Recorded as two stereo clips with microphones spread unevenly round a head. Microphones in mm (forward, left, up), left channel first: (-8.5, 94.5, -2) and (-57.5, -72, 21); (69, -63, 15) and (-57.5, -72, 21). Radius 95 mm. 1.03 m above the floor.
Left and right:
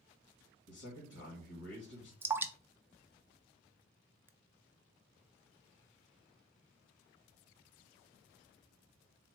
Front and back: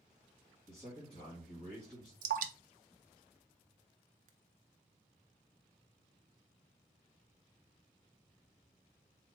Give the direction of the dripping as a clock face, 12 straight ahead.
6 o'clock.